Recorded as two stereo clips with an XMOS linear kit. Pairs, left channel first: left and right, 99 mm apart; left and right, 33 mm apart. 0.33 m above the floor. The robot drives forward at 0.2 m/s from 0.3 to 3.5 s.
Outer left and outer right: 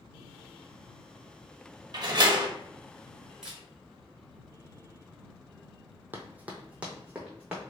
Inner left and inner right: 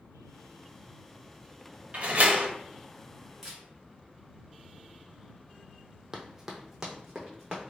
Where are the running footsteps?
20° right (ahead or behind), 0.6 m; by 7.7 s 10° right (ahead or behind), 1.4 m.